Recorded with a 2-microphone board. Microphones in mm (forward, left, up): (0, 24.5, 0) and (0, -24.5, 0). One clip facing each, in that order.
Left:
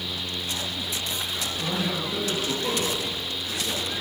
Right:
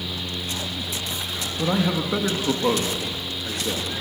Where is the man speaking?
55° right (ahead or behind), 2 m.